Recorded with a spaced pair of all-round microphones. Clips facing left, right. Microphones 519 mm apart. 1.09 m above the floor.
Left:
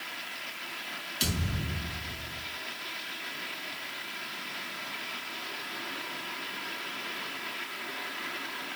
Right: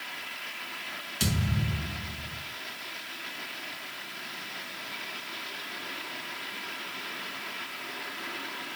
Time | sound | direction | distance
1.2 | a thud | 80° right | 3.5 m